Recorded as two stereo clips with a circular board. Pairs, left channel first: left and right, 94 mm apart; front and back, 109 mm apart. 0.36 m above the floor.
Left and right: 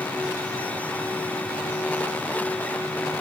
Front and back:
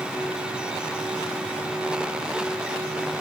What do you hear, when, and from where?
Only background noise.